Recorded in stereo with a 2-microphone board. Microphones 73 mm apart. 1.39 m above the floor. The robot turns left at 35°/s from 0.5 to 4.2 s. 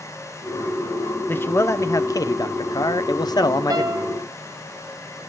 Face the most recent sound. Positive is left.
turn(degrees=-35)  # may be behind; listen again after turning